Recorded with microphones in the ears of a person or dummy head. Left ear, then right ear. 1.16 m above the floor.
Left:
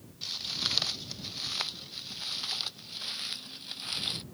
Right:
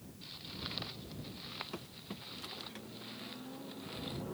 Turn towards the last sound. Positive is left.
turn(degrees=70)  # may be behind; listen again after turning